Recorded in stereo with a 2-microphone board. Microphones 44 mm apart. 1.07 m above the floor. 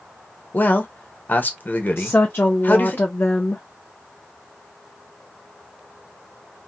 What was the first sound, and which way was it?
A man speaking, 45° left (ahead or behind).